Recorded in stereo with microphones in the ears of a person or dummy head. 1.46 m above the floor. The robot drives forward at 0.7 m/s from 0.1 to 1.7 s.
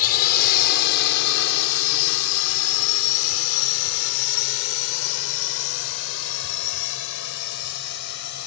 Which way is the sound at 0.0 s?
50° left (ahead or behind).